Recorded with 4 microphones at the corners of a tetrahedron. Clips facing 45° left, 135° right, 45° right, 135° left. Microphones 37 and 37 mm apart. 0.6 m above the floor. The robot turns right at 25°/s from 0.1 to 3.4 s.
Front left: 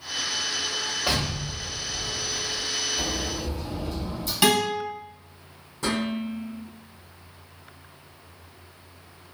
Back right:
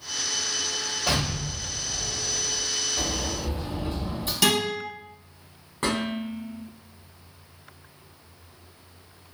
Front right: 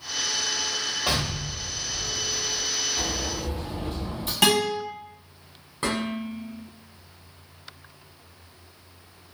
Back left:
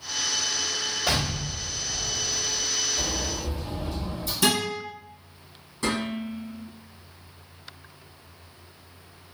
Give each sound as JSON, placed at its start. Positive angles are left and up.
{"t": 1.1, "sound": "an explosion", "azimuth_deg": -25, "distance_m": 1.4}
{"t": 3.0, "sound": "a sliding door", "azimuth_deg": -90, "distance_m": 1.0}
{"t": 4.4, "sound": "a guitar", "azimuth_deg": -30, "distance_m": 1.8}
{"t": 5.8, "sound": "dishes clattering", "azimuth_deg": -95, "distance_m": 1.4}